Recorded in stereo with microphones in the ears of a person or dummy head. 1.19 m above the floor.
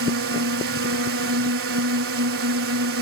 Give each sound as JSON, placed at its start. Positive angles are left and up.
{"t": 0.0, "sound": "a drone", "side_deg": -70}